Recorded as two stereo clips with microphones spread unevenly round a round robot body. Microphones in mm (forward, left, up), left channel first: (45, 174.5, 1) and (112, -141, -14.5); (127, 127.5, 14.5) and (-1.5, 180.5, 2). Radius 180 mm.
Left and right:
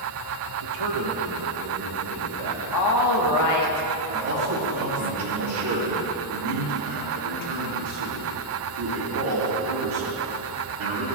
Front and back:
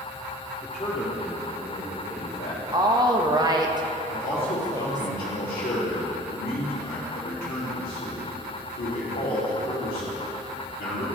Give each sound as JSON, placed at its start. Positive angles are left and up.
{"t": 0.6, "sound": "a man speaking", "azimuth_deg": -95, "distance_m": 1.4}
{"t": 2.7, "sound": "a woman speaking", "azimuth_deg": 115, "distance_m": 1.2}
{"t": 4.1, "sound": "a man speaking", "azimuth_deg": -60, "distance_m": 2.5}